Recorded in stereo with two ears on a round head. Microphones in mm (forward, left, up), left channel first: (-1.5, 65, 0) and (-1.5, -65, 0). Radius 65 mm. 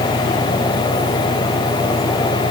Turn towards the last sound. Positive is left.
turn(degrees=-60)  # may be behind; listen again after turning